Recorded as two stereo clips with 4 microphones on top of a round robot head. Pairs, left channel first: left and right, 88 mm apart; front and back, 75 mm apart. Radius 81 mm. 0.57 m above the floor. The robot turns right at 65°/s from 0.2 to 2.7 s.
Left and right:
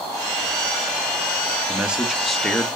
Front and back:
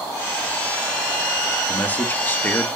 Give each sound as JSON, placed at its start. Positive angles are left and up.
{"t": 1.7, "sound": "a man speaking", "azimuth_deg": -35, "distance_m": 0.7}